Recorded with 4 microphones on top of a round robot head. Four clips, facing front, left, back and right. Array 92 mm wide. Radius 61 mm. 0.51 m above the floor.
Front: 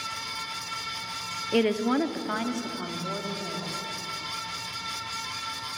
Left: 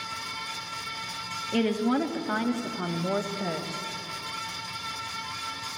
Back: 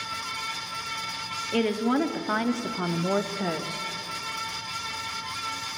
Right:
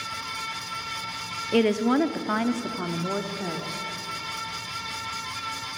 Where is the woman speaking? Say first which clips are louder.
Right 4 dB, front 1 dB; 65° right, 1.2 m; by 3.8 s straight behind, 1.7 m.